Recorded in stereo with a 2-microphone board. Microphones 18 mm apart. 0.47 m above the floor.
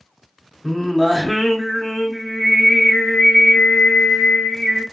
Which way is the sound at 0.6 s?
15° left (ahead or behind).